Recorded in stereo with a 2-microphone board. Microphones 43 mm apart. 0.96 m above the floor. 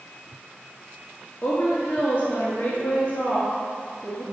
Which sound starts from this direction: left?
A woman speaking, at 1.4 s.